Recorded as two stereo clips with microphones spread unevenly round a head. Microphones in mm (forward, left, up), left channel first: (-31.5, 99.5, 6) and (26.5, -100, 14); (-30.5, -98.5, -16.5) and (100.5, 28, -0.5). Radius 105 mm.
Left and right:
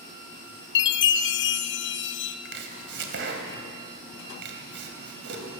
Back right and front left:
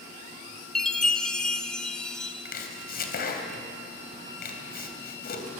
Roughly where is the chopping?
Right.